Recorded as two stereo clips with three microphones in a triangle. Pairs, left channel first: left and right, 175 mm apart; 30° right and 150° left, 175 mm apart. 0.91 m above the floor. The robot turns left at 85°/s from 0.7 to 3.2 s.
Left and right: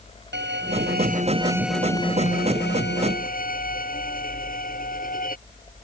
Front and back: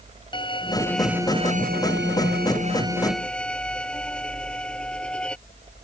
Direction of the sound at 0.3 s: 95° right.